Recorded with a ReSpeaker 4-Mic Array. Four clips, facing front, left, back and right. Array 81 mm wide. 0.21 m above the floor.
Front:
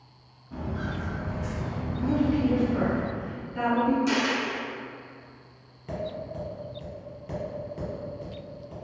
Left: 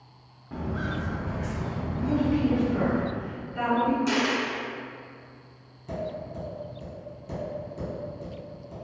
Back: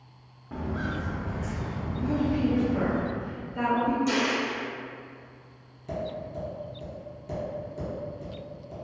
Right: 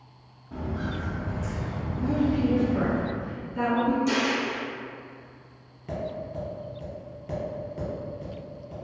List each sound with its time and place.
0.5 s footsteps: 155° left, 0.7 m; by 3.0 s 50° left, 1.4 m
2.0 s a woman speaking: 35° left, 1.6 m
4.1 s a dropped coin: 55° left, 1.0 m
5.9 s tapping: 35° right, 1.5 m